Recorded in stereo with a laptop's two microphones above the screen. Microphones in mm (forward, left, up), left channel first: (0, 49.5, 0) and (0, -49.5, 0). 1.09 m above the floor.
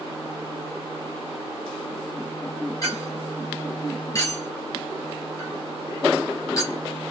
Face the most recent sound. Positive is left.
turn(degrees=30)  # may be behind; listen again after turning